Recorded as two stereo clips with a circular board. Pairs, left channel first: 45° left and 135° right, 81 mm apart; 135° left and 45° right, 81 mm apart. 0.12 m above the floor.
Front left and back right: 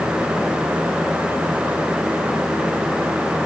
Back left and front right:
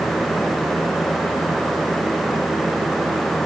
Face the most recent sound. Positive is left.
No sound to turn to.